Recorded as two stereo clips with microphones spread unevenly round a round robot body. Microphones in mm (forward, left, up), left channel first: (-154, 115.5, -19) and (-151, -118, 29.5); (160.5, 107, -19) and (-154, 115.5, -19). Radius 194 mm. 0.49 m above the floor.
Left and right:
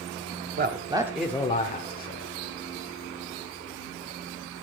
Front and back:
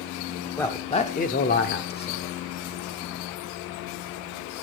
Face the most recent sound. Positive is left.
turn(degrees=55)